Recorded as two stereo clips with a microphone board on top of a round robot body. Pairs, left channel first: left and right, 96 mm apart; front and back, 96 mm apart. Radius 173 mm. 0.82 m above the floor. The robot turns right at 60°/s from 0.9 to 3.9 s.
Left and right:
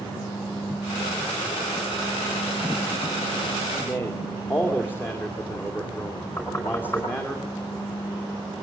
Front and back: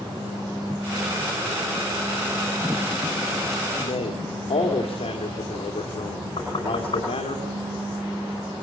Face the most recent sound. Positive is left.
turn(degrees=30)